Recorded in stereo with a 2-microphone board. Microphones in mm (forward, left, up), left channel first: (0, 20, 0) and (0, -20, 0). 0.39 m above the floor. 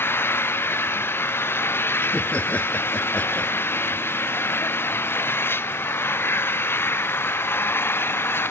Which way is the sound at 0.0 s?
65° left (ahead or behind).